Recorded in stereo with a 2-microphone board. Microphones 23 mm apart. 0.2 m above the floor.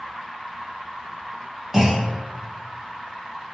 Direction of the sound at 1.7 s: 20° right (ahead or behind).